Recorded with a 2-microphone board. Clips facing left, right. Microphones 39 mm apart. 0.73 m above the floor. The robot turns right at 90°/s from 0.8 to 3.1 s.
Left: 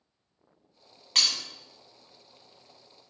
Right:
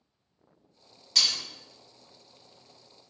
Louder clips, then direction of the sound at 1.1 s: Even; 40° left (ahead or behind).